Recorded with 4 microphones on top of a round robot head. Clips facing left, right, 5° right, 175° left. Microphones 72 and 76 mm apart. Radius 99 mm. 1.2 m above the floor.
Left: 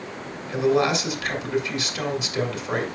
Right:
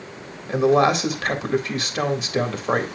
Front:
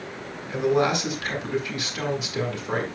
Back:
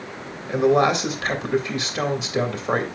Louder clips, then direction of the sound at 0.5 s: Right 4 dB, back 4 dB; 130° right.